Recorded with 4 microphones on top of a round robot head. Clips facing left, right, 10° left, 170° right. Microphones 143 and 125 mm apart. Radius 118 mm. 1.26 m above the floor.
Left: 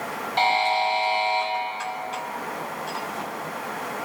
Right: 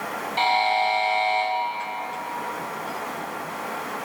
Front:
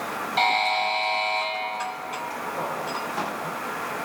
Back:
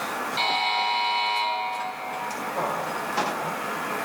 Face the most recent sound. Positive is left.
turn(degrees=40)